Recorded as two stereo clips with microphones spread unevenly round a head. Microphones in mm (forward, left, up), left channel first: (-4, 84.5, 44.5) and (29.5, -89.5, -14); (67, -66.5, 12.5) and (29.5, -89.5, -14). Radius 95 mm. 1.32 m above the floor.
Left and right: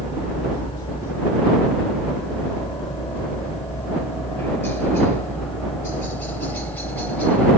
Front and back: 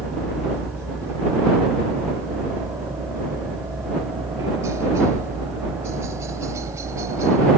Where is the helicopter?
175° left; by 7.6 s 175° right.